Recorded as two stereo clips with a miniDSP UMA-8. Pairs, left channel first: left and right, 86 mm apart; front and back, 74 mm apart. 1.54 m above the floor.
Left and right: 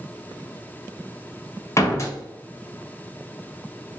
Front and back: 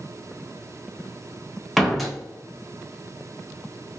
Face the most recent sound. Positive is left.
turn(degrees=85)